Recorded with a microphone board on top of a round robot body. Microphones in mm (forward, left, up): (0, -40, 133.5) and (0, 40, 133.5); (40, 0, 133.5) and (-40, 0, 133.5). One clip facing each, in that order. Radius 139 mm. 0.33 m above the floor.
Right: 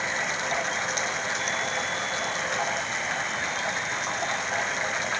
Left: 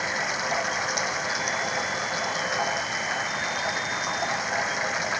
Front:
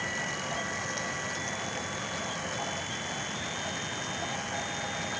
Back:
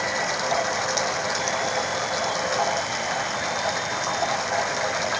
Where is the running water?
170° left.